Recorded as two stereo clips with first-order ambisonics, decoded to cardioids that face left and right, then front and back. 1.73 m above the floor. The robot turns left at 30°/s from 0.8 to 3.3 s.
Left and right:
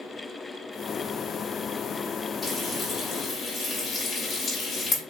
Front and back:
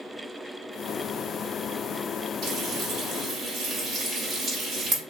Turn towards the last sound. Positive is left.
turn(degrees=150)